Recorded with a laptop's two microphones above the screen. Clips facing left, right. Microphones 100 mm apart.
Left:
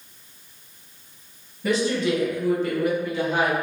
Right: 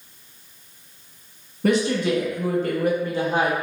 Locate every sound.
1.6 s a woman speaking: 55° right (ahead or behind), 1.7 m; by 3.5 s 25° right (ahead or behind), 1.0 m